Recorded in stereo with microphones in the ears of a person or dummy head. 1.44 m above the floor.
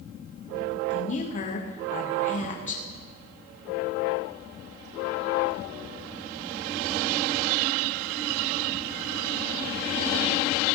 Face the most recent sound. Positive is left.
turn(degrees=45)  # may be behind; listen again after turning